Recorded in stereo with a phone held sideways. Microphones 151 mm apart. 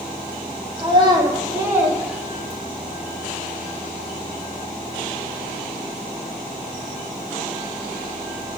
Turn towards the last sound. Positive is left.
turn(degrees=15)  # may be behind; listen again after turning